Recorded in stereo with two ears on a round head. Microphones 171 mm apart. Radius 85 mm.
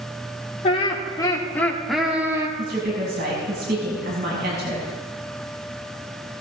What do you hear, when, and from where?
0.6 s laughter: 30° left (ahead or behind), 3 m; by 2.5 s 20° right (ahead or behind), 2 m
2.6 s a woman speaking: 55° right (ahead or behind), 6 m